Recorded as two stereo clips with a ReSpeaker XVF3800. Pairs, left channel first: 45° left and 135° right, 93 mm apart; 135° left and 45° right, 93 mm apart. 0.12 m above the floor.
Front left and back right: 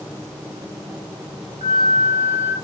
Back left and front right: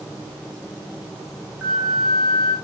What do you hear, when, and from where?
1.6 s a flute: 120° right, 6.5 m